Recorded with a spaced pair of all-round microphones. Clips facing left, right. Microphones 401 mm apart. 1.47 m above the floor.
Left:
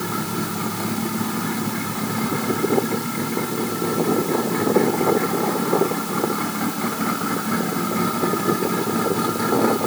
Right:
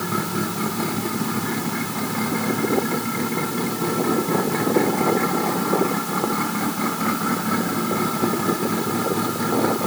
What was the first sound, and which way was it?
Only background noise.